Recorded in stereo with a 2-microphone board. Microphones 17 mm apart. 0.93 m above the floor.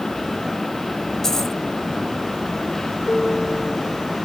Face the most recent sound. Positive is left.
turn(degrees=70)  # may be behind; listen again after turning